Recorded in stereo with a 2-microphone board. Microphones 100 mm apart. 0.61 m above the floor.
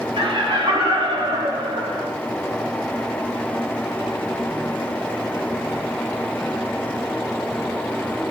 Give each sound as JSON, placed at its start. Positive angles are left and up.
{"t": 0.2, "sound": "laughter", "side_deg": -55, "distance_m": 2.5}